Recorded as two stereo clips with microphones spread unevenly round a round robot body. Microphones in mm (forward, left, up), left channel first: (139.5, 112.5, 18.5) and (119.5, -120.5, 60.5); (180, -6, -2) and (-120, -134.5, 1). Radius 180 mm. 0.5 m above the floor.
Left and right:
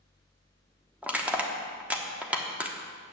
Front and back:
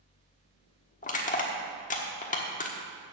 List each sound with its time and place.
1.0 s crushing: 5° left, 1.2 m